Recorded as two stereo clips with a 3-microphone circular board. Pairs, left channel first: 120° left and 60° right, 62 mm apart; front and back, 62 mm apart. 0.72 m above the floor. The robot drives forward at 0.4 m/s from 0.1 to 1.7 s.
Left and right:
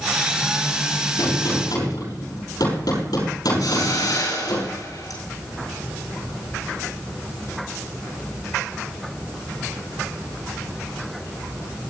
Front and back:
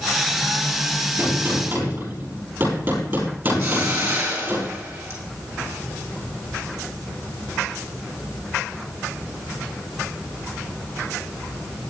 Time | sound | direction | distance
1.2 | a gunshot | 125° left | 7.5 m
3.6 | a hiss | 135° left | 6.5 m